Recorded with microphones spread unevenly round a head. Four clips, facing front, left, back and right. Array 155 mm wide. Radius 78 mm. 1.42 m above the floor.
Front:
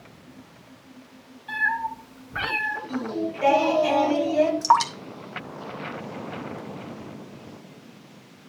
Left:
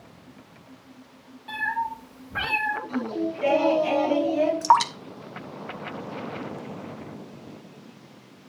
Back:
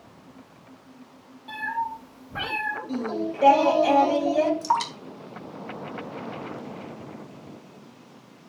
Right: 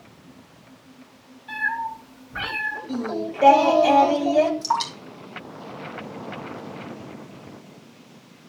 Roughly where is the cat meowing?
Behind left.